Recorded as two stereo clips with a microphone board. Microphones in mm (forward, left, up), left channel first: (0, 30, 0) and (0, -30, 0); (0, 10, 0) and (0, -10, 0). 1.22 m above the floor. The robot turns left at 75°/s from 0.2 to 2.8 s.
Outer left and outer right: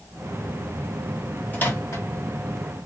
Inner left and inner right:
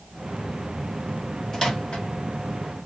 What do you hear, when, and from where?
1.5 s a microwave: 30° left (ahead or behind), 1.7 m; by 2.0 s 65° left (ahead or behind), 1.7 m